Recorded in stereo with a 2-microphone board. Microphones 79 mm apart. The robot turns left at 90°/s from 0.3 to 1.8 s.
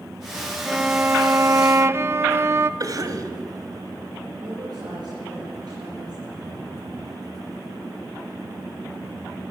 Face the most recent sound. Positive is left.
turn(degrees=-60)  # may be behind; listen again after turning